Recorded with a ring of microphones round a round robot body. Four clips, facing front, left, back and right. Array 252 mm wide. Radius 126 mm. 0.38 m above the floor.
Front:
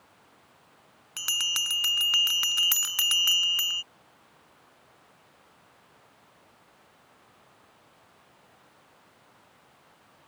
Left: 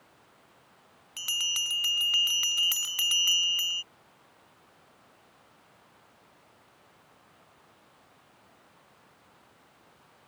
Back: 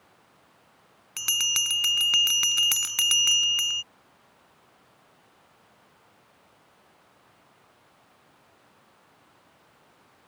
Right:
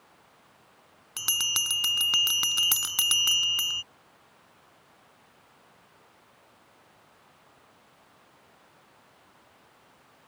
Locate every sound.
1.2 s a bell: 115° right